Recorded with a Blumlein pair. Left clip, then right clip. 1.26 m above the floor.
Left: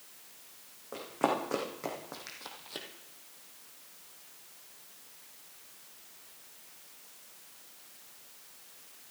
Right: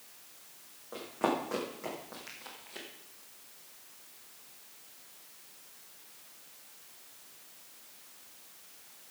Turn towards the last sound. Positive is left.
turn(degrees=30)